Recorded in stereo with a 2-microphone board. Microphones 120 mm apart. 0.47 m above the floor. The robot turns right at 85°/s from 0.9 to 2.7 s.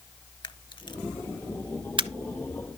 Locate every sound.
0.4 s a camera shutter: 40° left (ahead or behind), 0.5 m; by 2.1 s 50° right (ahead or behind), 0.5 m